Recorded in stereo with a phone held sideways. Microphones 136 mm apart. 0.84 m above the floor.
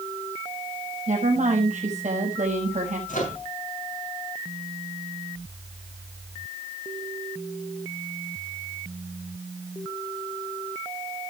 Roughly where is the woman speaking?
Right.